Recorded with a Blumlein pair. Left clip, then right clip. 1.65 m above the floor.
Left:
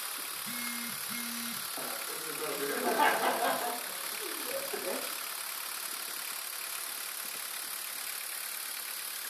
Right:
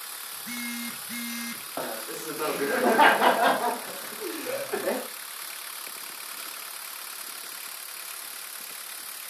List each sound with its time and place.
0.3 s a phone buzzing: 60° right, 2.5 m
1.8 s laughter: 35° right, 1.4 m